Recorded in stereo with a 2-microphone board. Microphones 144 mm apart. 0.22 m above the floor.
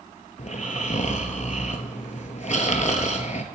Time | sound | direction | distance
0.4 | snoring | 60° left (ahead or behind) | 0.8 m